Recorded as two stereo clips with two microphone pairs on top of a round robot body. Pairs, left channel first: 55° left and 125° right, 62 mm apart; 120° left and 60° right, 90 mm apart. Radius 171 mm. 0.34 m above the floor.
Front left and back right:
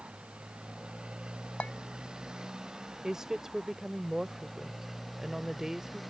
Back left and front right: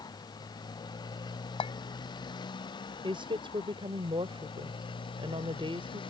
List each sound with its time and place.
0.0 s a motorcycle: 165° left; by 6.1 s 150° left
1.6 s a clink: 125° left
3.0 s a woman speaking: 40° right